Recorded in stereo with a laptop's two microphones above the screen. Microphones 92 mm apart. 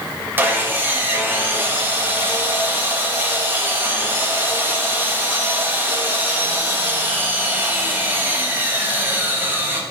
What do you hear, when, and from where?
0.4 s sawing: 25° right (ahead or behind), 0.7 m